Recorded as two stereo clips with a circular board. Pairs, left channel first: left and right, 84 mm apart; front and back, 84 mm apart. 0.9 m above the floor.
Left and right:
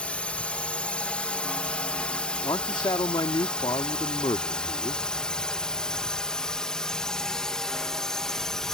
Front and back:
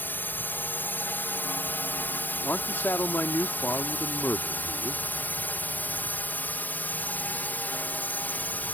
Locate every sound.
0.0 s a drone: 30° left; by 8.8 s 15° left
2.4 s a man speaking: 65° left